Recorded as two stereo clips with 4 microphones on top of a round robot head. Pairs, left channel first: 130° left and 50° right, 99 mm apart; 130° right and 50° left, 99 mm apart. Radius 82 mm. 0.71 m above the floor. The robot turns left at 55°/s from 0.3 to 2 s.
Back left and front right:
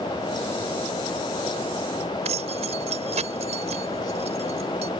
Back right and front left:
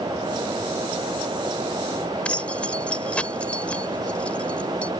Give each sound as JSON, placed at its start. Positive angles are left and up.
{"t": 2.2, "sound": "keys jangling", "azimuth_deg": -50}